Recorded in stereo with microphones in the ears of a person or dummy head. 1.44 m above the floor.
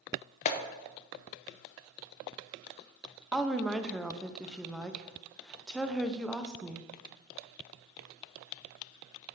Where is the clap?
45° left (ahead or behind), 0.8 m.